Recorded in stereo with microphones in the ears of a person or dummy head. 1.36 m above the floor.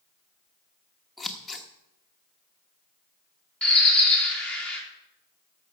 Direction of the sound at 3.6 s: 5° left (ahead or behind).